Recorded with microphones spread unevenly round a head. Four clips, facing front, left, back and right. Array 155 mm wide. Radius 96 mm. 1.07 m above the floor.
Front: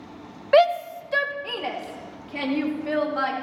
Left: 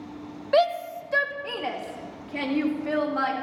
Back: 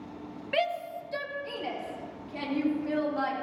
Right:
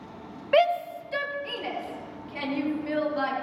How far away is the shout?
About 0.7 m.